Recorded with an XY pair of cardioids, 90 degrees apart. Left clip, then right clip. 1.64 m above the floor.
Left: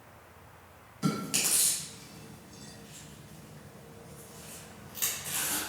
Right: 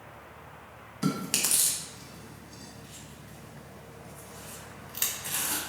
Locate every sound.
1.0 s chewing: 50° right, 1.8 m